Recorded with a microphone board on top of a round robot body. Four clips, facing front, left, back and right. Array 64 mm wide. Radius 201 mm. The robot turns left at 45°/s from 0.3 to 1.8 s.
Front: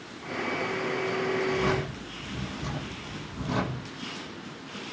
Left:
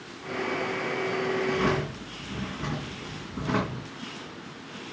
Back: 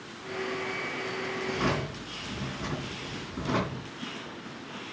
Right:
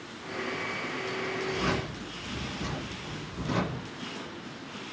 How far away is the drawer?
About 4 m.